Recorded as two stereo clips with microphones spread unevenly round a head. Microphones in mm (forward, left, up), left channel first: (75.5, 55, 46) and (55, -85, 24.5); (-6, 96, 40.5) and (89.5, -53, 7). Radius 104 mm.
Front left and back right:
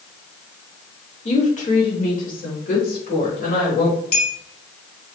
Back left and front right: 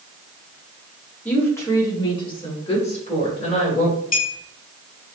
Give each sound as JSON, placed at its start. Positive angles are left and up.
{"t": 1.2, "sound": "a woman speaking", "azimuth_deg": 40, "distance_m": 2.5}
{"t": 4.1, "sound": "a clink", "azimuth_deg": 85, "distance_m": 2.0}